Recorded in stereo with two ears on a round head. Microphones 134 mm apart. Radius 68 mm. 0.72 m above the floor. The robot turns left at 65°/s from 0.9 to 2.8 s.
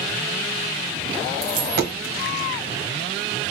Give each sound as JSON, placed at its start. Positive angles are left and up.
{"t": 1.4, "sound": "a dropped coin", "side_deg": -35, "distance_m": 1.3}